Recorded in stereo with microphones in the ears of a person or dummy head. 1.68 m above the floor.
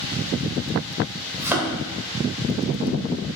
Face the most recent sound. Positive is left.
turn(degrees=-15)  # may be behind; listen again after turning